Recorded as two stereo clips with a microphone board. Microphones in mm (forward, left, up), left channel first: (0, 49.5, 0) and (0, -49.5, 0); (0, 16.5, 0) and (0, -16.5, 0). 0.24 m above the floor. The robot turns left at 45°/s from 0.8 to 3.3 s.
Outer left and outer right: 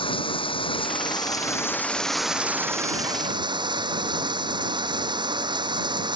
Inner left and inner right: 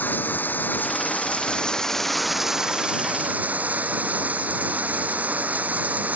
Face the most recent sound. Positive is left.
turn(degrees=-50)